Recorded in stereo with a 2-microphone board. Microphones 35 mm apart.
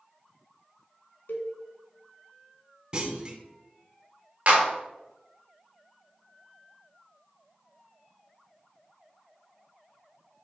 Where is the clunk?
30° right (ahead or behind), 0.6 m.